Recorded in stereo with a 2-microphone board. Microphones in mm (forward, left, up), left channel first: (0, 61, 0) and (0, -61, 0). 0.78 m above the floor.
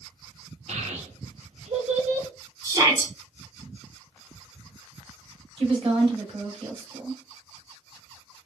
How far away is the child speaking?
About 0.9 m.